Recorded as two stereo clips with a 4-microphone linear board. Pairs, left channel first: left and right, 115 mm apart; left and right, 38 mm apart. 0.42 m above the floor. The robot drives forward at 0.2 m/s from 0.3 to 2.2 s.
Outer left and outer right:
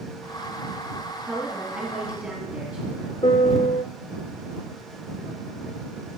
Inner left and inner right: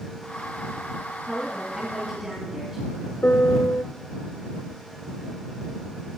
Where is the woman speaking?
15° right (ahead or behind), 3 m; by 3.1 s 10° right (ahead or behind), 3 m.